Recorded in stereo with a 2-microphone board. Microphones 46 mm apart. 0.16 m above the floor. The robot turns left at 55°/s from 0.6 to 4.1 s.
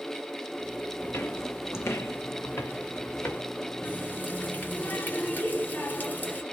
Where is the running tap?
50° left (ahead or behind), 1.3 m; by 6.4 s 40° left (ahead or behind), 1.3 m.